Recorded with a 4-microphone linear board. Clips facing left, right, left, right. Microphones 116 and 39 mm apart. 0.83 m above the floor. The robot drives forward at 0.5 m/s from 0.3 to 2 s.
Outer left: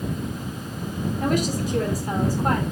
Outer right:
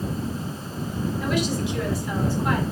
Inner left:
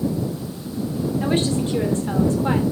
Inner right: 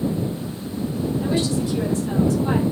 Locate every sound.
1.2 s a woman speaking: 45° left (ahead or behind), 3 m; by 2.6 s 40° left (ahead or behind), 3.5 m